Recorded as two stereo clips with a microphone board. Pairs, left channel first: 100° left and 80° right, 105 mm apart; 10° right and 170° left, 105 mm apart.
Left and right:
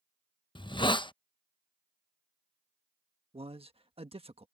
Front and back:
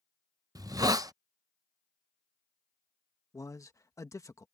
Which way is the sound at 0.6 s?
120° left.